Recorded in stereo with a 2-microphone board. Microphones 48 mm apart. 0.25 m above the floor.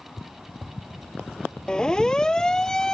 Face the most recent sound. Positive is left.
turn(degrees=10)  # may be behind; listen again after turning